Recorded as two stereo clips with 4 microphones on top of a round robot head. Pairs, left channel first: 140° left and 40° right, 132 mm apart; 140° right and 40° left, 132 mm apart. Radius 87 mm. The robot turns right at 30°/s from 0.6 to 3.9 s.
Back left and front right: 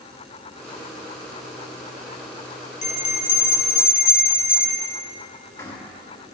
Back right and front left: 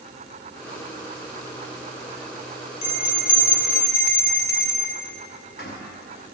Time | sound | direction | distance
2.8 | a bell | 175° left | 1.0 m